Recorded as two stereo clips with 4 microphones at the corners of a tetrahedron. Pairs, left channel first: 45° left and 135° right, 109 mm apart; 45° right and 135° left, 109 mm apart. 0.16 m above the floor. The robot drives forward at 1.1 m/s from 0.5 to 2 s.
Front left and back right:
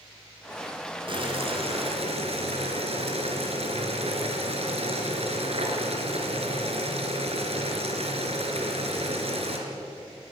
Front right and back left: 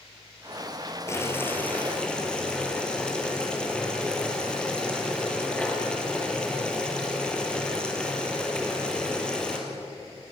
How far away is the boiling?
About 2.5 m.